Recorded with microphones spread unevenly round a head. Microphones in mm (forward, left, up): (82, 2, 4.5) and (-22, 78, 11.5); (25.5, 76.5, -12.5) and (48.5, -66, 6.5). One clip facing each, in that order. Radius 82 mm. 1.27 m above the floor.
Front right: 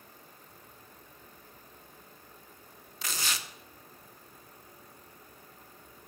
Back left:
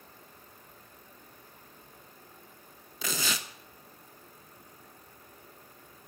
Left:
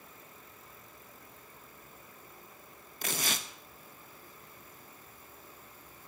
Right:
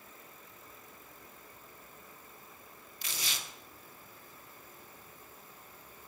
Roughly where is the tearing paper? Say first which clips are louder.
Back left 3 dB, left 8 dB; behind left.